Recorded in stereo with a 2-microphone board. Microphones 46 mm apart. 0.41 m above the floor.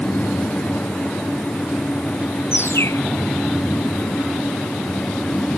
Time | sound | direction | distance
2.5 | a bird | 65° left (ahead or behind) | ?